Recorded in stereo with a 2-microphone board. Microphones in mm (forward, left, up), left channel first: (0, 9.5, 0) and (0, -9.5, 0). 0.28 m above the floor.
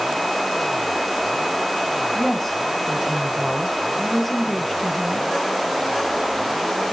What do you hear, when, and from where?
2.1 s a woman speaking: 5° left (ahead or behind), 2.5 m